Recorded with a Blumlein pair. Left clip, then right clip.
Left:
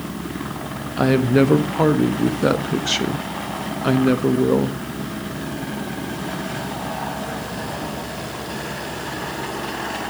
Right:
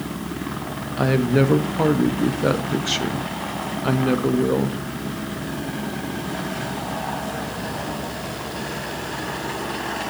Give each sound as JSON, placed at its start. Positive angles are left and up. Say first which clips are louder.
{"t": 1.0, "sound": "a woman speaking", "louder": "left 3 dB", "azimuth_deg": 5, "distance_m": 1.0}